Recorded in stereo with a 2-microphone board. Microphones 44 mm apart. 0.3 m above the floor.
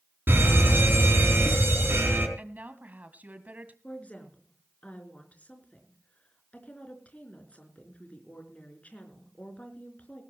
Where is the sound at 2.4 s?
40° right (ahead or behind), 1.7 m.